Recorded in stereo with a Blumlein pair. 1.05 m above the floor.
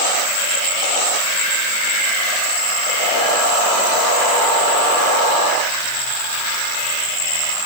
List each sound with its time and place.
Only background noise.